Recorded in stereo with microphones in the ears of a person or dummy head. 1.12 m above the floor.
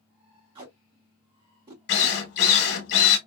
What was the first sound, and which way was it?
Tape being pulled, 30° right (ahead or behind).